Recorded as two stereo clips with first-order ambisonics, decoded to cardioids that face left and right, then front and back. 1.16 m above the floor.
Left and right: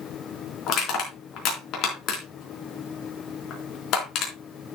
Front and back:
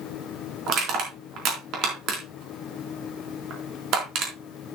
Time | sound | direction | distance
0.7 | crushing | 135° left | 4 m